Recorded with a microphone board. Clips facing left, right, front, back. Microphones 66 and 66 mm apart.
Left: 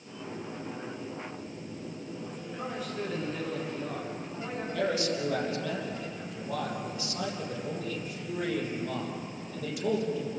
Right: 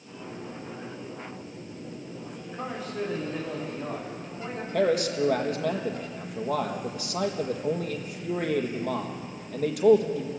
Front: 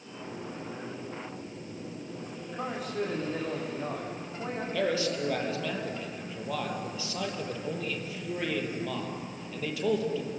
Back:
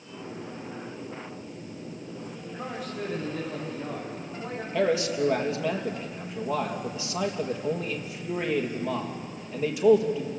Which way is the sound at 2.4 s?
35° right.